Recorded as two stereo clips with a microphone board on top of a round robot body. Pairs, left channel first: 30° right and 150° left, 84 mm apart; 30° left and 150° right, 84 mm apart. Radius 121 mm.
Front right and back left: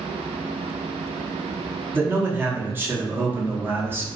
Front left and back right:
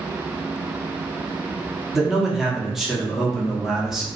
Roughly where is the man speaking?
Behind left.